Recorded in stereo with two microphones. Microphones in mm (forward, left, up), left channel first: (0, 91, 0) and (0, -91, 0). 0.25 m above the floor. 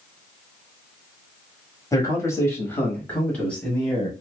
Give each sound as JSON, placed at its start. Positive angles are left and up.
{"t": 1.9, "sound": "a man speaking", "side_deg": 20, "distance_m": 1.1}